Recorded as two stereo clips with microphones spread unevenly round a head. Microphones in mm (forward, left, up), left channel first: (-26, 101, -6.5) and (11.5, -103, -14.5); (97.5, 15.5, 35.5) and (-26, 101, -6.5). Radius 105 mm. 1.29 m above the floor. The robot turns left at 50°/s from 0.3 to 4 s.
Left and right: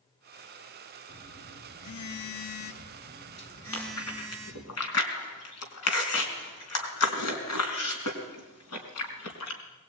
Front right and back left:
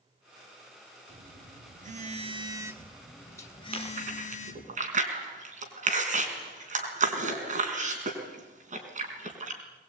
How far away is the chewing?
About 4.5 m.